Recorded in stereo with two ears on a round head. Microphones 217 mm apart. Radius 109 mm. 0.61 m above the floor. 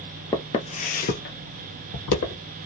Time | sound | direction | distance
0.3 | footsteps | 10° left (ahead or behind) | 0.6 m